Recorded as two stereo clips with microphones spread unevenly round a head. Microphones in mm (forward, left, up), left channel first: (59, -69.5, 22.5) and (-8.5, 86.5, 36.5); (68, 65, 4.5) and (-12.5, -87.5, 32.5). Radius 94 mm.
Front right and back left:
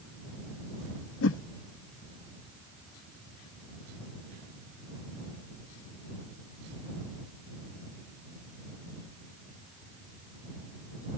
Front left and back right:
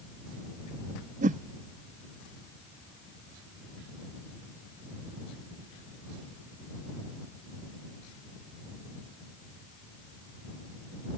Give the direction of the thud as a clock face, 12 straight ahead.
No thud in this recording.